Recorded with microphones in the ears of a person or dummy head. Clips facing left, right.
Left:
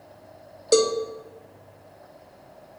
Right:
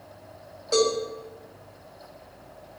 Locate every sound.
0.7 s a cowbell: 45° left (ahead or behind), 0.6 m